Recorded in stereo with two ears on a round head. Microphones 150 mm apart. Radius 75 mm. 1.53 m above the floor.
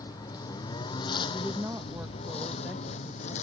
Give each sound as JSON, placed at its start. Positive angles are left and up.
{"t": 0.0, "sound": "a lawn mower", "side_deg": 20}
{"t": 1.3, "sound": "a woman speaking", "side_deg": -10}